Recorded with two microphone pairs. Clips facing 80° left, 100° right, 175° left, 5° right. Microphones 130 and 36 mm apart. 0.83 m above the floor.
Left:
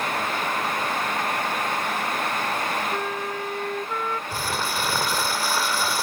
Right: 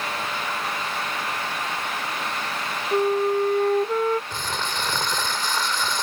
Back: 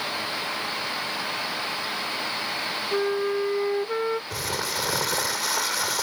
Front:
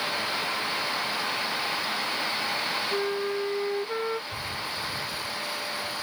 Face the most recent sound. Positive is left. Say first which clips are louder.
# left 2 dB, back 4 dB
turn(degrees=160)